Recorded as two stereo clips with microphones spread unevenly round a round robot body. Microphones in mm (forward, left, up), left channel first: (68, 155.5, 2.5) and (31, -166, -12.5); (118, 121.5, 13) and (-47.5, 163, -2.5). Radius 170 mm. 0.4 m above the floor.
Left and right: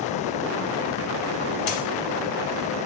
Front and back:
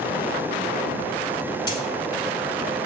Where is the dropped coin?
50° left, 1.7 m.